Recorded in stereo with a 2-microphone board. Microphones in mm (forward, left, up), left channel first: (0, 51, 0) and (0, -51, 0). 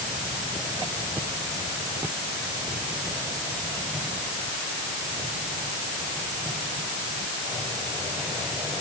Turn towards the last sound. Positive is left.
No sound to turn to.